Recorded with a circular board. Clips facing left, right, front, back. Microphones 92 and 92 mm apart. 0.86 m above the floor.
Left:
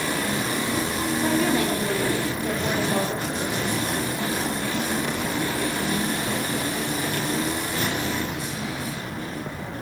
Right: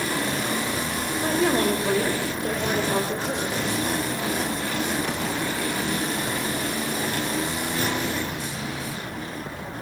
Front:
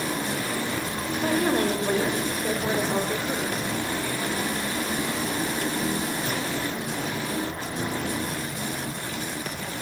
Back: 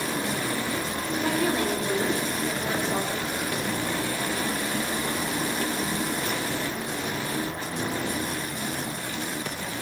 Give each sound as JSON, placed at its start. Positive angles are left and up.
{"t": 1.2, "sound": "a woman speaking", "azimuth_deg": -40, "distance_m": 4.0}